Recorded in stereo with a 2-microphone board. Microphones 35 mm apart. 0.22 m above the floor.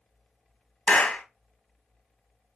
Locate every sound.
0.9 s a clap: 35° left (ahead or behind), 1.1 m